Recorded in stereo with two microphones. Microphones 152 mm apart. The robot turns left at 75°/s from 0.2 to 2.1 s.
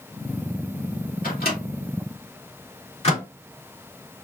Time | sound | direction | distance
1.2 | a microwave | 70° left (ahead or behind) | 2.5 m